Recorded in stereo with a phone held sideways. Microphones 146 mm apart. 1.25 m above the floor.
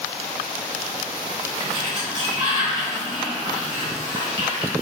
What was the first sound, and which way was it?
A sliding door, 30° right (ahead or behind).